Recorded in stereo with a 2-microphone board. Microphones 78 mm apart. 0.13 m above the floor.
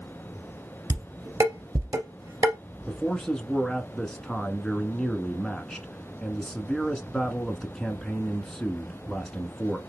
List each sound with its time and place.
0.9 s dishes clattering: 45° right (ahead or behind), 1.9 m
2.9 s a man speaking: 5° left (ahead or behind), 1.1 m